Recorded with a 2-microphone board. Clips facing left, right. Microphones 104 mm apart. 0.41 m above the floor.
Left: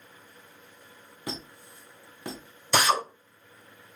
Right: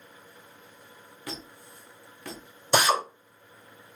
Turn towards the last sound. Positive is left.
turn(degrees=-20)  # may be behind; listen again after turning